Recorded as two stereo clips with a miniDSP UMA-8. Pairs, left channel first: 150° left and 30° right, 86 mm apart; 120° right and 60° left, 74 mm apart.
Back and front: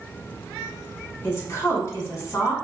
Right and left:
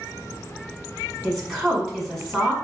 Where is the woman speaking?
155° left, 1.5 m.